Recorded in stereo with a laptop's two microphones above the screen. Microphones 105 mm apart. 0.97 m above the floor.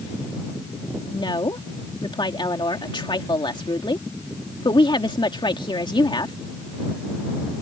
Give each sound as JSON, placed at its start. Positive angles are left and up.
{"t": 1.1, "sound": "a woman speaking", "side_deg": 50}